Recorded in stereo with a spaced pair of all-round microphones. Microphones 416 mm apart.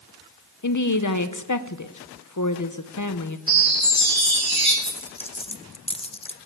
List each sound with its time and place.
0.6 s a woman speaking: 45° left (ahead or behind), 0.9 m
3.5 s a chime: 30° right (ahead or behind), 5.5 m
4.8 s a dropped coin: 15° left (ahead or behind), 0.7 m